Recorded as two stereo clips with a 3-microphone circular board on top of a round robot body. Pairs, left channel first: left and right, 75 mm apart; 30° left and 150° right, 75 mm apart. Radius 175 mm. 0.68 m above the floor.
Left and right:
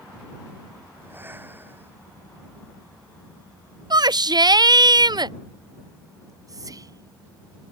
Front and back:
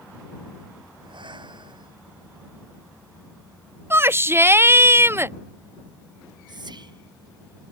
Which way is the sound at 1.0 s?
155° right.